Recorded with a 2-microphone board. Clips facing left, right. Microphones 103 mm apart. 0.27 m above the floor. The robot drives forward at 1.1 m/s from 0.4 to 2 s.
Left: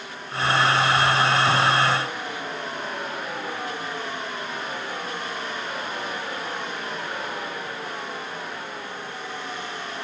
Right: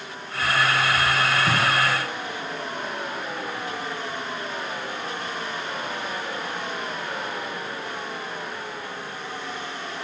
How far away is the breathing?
About 2 m.